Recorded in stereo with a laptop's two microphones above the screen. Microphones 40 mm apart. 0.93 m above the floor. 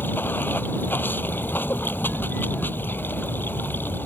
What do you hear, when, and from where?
0.0 s running water: 55° left (ahead or behind)